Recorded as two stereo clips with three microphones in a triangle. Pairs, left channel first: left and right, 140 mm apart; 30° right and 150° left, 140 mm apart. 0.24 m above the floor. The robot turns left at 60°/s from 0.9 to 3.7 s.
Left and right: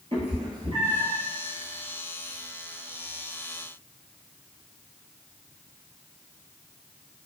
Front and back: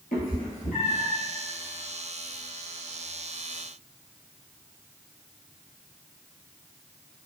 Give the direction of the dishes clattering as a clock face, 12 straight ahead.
No dishes clattering in this recording.